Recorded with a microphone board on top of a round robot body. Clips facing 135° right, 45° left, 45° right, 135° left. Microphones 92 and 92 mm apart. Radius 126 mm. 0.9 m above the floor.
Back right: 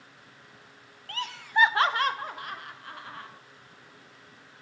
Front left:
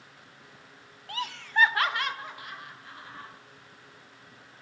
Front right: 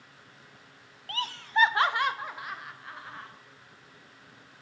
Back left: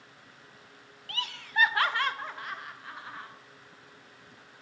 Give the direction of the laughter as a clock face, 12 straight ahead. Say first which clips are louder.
Back right 2 dB, front right 5 dB; 1 o'clock.